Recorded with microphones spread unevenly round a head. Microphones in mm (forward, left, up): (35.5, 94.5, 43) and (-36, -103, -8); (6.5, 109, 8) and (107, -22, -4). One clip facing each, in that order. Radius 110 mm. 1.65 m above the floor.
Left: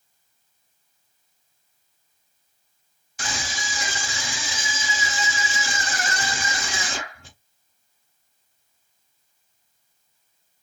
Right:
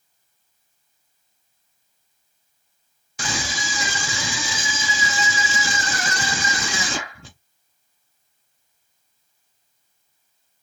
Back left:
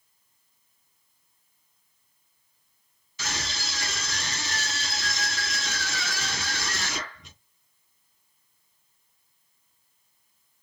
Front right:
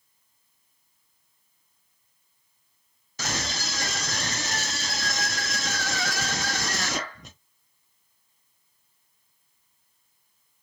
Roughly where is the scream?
Right.